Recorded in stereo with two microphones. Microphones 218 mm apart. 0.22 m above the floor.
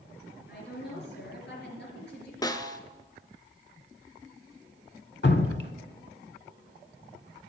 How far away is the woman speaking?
About 4 m.